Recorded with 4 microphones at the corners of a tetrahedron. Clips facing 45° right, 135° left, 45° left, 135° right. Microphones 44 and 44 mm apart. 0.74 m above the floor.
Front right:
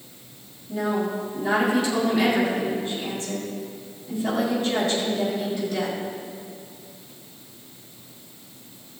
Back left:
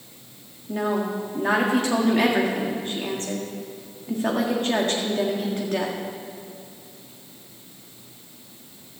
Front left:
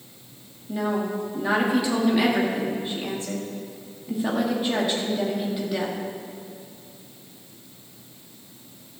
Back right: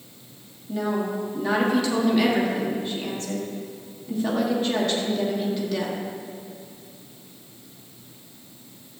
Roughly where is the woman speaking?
Behind left.